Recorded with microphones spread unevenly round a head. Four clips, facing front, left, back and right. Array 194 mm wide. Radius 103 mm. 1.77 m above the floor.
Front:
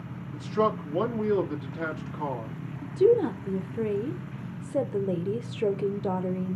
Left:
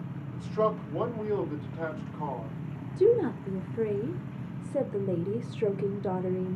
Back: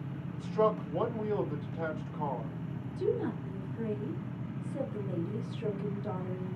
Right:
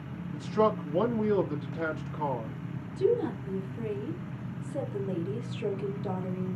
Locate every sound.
0.3 s a man speaking: 45° right, 1.7 m
2.8 s a woman speaking: 15° left, 0.8 m